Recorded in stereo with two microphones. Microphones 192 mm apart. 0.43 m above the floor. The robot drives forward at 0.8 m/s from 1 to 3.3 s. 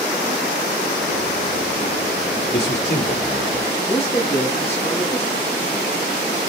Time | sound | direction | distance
2.5 | a man speaking | 55° left (ahead or behind) | 8.5 m
3.9 | a man speaking | 30° left (ahead or behind) | 8 m